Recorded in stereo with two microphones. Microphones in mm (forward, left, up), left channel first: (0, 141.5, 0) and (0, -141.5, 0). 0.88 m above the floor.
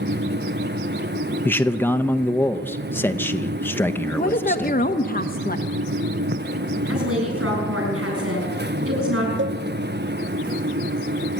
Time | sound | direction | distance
1.4 | a man speaking | 5° left (ahead or behind) | 0.6 m
4.2 | a woman speaking | 30° left (ahead or behind) | 0.8 m
6.9 | a woman speaking | 50° right (ahead or behind) | 8 m
9.4 | a cowbell | 45° right (ahead or behind) | 0.5 m